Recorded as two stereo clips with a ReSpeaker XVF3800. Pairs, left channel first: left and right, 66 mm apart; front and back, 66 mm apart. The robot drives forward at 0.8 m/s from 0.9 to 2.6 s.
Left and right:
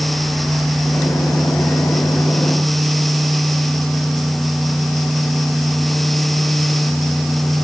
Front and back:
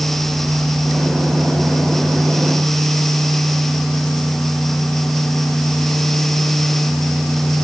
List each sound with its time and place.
Only background noise.